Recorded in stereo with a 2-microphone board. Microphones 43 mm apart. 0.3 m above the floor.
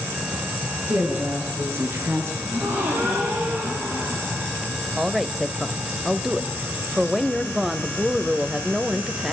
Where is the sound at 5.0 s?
10° right (ahead or behind), 0.9 m.